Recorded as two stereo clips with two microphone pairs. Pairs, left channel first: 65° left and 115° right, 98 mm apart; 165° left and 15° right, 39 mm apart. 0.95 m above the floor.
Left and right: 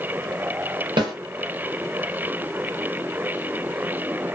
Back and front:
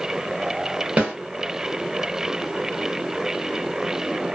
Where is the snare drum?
75° right, 1.1 m.